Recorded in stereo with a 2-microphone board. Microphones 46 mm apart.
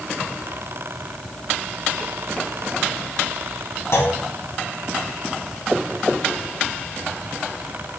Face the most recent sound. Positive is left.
turn(degrees=70)  # may be behind; listen again after turning